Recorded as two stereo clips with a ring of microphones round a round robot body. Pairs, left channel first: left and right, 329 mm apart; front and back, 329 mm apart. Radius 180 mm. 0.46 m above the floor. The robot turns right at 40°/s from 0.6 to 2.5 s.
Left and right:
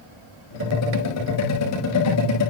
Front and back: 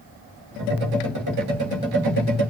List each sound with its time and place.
Only background noise.